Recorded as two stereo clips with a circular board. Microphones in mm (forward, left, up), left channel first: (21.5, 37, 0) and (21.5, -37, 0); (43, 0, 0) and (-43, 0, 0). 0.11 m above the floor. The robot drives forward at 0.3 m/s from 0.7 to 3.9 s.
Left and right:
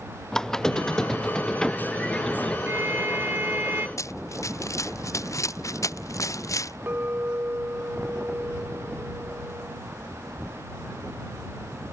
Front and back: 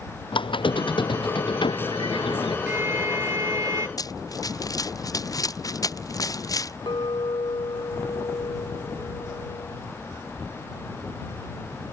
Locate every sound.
0.3 s a squeak: 10° left
2.7 s a violin: 130° right; by 3.9 s 145° right
4.0 s running footsteps: 45° left
6.9 s a clink: 25° right